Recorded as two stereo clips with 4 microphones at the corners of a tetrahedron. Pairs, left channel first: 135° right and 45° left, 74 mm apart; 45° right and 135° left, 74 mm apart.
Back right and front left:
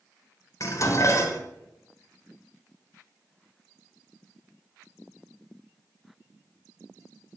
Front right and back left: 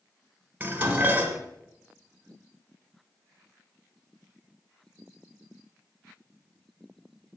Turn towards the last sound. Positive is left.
turn(degrees=-160)